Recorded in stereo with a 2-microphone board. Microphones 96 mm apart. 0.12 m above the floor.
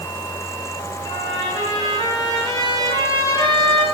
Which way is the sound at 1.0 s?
40° left (ahead or behind).